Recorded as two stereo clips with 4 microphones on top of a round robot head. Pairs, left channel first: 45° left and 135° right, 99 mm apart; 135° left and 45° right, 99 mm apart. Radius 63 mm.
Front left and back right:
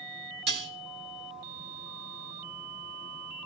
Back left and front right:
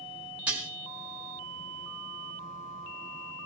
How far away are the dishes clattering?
About 3 m.